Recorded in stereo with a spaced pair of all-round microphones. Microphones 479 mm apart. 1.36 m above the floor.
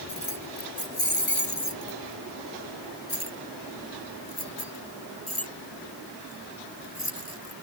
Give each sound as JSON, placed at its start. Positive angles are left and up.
{"t": 0.1, "sound": "keys jangling", "side_deg": 85}